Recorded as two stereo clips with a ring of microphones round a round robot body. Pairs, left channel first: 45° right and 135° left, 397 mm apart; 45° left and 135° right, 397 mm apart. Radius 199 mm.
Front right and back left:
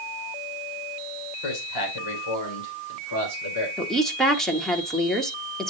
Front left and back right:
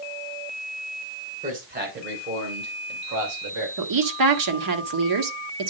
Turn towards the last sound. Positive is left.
turn(degrees=-135)